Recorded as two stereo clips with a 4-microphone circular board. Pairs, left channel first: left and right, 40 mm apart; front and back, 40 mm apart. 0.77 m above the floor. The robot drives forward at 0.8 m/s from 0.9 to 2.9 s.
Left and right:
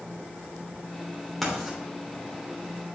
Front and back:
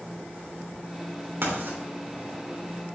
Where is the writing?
Straight behind, 3 m.